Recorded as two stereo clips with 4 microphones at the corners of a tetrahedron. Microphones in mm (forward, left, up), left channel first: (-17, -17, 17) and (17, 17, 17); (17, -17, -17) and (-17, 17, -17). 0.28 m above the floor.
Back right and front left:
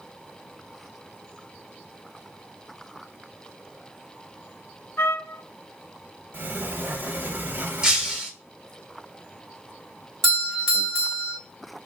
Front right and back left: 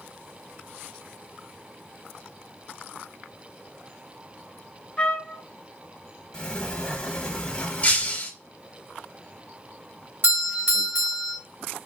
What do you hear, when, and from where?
5.0 s a trumpet: 110° right, 0.5 m
6.3 s a sliding door: 20° left, 0.8 m
7.8 s breaking glass: 20° right, 0.8 m
10.2 s a doorbell: 150° left, 2 m